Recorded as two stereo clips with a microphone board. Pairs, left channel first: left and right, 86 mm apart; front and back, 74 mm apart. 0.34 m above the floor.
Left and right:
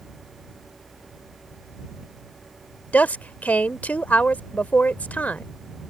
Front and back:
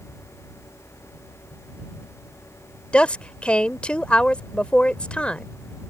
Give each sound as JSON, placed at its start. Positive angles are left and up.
{"t": 2.9, "sound": "a woman speaking", "azimuth_deg": 50}